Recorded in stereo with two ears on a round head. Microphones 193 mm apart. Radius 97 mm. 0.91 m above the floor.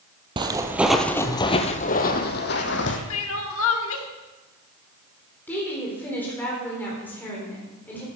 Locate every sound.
0.4 s footsteps: 25° right (ahead or behind), 1.1 m; by 3.0 s 60° left (ahead or behind), 1.9 m
3.1 s crying: 70° left (ahead or behind), 1.5 m
5.5 s a woman speaking: 10° left (ahead or behind), 3.5 m